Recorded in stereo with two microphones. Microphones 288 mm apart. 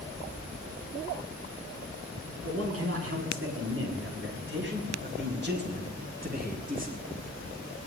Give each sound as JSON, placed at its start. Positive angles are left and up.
{"t": 2.4, "sound": "a man speaking", "side_deg": -55, "distance_m": 7.0}